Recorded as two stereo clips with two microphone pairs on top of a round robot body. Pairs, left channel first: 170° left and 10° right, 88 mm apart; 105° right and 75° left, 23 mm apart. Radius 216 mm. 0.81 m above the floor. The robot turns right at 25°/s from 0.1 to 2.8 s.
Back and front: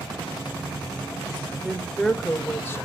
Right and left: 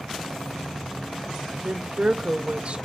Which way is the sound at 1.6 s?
80° left.